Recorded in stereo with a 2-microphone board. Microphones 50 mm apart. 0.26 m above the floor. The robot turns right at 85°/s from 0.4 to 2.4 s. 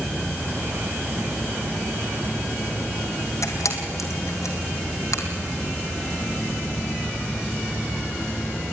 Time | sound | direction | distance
3.4 | a camera shutter | 85° left | 2 m